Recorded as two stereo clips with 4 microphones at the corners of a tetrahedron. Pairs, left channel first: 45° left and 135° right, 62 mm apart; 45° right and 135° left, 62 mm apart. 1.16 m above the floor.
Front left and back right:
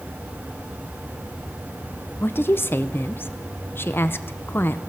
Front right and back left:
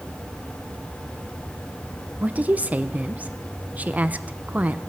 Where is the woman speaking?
80° left, 0.7 m.